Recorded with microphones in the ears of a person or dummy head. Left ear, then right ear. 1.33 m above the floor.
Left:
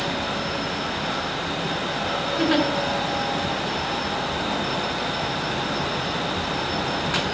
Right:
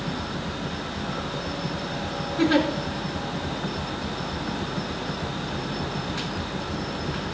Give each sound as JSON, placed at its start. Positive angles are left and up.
{"t": 2.4, "sound": "a giggle", "side_deg": 15, "distance_m": 3.5}